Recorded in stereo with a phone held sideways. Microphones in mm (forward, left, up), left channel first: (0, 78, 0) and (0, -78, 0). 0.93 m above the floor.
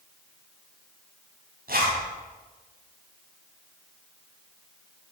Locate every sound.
1.7 s a zipper: 75° right (ahead or behind), 5.5 m